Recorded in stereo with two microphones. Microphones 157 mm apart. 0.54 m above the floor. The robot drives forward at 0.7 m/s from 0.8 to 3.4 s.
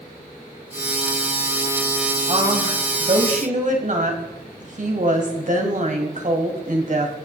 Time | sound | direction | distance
2.3 | a woman speaking | 45° right (ahead or behind) | 3.5 m